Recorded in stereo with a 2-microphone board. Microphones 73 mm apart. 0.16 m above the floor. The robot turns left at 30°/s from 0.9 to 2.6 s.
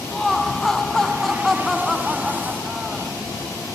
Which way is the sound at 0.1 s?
10° left (ahead or behind).